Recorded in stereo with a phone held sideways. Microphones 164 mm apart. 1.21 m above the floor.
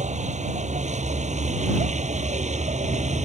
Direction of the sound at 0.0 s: 45° right (ahead or behind).